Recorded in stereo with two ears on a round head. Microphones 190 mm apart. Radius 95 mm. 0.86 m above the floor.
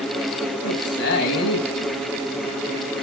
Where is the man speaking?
55° left (ahead or behind), 5 m.